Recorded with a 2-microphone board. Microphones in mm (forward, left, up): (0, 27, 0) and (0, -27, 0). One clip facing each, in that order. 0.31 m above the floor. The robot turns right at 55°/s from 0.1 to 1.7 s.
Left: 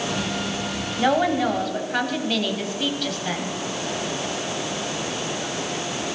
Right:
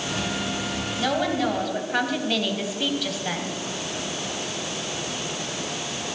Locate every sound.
1.0 s a woman speaking: 140° left, 1.8 m; by 3.5 s straight behind, 1.8 m